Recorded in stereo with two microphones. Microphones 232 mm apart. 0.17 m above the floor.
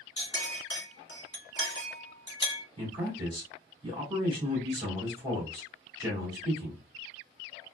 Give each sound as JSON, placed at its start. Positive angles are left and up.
{"t": 0.2, "sound": "a clink", "side_deg": 50, "distance_m": 1.4}
{"t": 2.8, "sound": "a man speaking", "side_deg": -20, "distance_m": 1.6}